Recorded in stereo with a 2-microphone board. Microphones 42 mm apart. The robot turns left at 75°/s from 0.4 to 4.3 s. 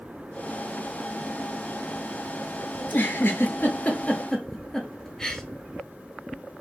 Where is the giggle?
40° left (ahead or behind), 0.5 m; by 5.4 s 10° left (ahead or behind), 0.5 m.